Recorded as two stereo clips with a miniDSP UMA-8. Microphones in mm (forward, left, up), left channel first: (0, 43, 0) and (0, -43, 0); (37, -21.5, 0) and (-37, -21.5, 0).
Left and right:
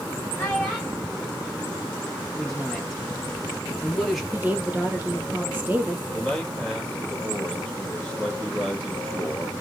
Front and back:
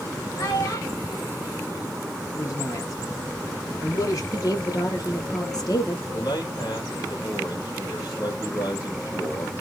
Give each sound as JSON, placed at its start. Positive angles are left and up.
{"t": 0.4, "sound": "a child speaking", "azimuth_deg": 25, "distance_m": 1.4}
{"t": 2.3, "sound": "a man speaking", "azimuth_deg": 0, "distance_m": 2.5}
{"t": 4.3, "sound": "a woman speaking", "azimuth_deg": -20, "distance_m": 2.5}
{"t": 6.1, "sound": "a man speaking", "azimuth_deg": 15, "distance_m": 3.0}